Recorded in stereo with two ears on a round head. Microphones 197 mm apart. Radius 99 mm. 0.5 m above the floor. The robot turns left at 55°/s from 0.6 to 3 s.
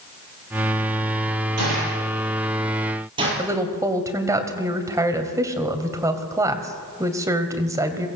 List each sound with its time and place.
1.6 s a gunshot: 80° right, 9.5 m; by 3.3 s 25° right (ahead or behind), 9.5 m
3.4 s a woman speaking: 15° right (ahead or behind), 2.5 m